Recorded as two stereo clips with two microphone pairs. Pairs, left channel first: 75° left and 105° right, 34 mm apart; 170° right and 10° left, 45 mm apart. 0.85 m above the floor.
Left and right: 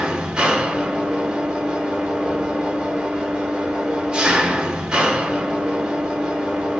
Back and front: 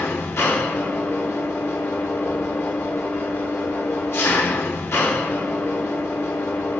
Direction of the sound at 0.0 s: 170° right.